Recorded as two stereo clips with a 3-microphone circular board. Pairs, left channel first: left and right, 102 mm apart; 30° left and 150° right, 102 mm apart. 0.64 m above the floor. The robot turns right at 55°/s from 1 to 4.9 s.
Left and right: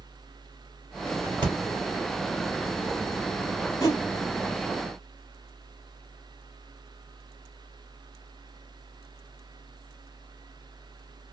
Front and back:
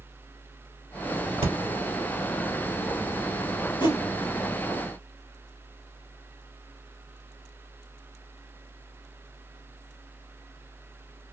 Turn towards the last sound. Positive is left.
turn(degrees=105)